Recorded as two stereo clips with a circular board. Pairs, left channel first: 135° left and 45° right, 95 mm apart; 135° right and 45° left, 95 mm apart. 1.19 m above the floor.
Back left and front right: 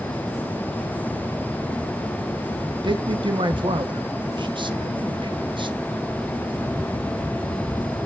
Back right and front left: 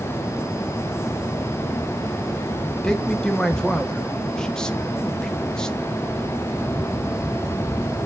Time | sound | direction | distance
2.8 | a man speaking | 55° right | 1.1 m